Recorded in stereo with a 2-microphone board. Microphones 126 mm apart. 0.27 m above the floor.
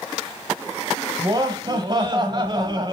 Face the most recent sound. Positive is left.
turn(degrees=-40)  # may be behind; listen again after turning